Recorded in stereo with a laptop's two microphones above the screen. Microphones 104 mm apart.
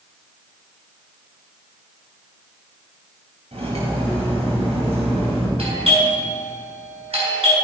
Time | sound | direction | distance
3.5 | cutlery clinking | 80° right | 4 m
5.6 | a doorbell | 70° right (ahead or behind) | 4.5 m